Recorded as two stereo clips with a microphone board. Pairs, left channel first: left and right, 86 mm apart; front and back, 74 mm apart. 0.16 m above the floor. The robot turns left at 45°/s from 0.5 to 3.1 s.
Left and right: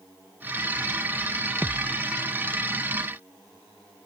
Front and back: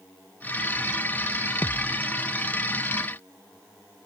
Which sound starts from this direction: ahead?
A thud, at 1.6 s.